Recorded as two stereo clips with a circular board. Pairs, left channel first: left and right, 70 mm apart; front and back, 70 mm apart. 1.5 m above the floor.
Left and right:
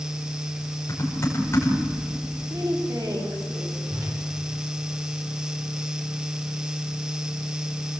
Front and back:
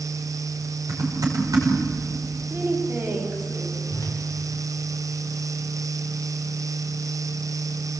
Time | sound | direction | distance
0.9 | typing on a keyboard | 145° left | 6 m
2.5 | a woman speaking | 120° right | 4.5 m
3.9 | a whoosh | 45° right | 6.5 m